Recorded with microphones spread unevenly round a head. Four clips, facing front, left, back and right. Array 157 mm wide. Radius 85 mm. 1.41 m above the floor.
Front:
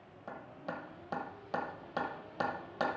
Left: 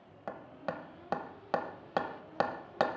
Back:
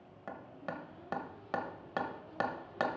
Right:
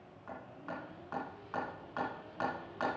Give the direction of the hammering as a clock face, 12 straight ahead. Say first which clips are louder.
Left 5 dB, even; 9 o'clock.